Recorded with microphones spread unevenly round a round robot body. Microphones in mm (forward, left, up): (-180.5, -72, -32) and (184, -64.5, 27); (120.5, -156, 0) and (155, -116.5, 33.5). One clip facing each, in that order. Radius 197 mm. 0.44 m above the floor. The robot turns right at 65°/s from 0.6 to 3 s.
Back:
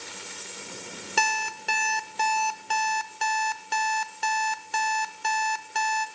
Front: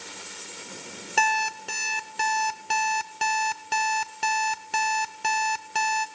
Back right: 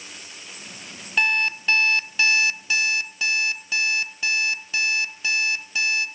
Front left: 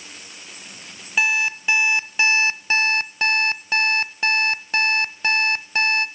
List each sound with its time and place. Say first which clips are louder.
1.2 s an alarm clock: front 3 dB, front left 1 dB; 130° right, 0.5 m; by 6.1 s 15° right, 0.5 m